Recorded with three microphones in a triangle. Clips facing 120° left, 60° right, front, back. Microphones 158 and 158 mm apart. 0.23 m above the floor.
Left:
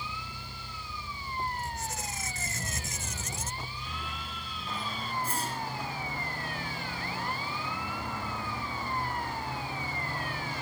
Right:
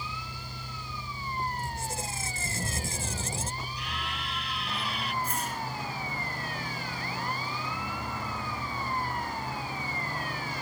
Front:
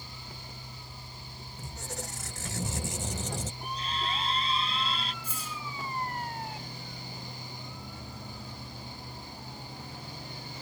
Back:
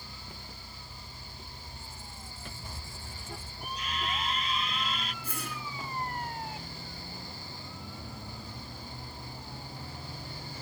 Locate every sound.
1.6 s a squeak: straight ahead
3.6 s a scream: 55° right
5.2 s a whoosh: 175° left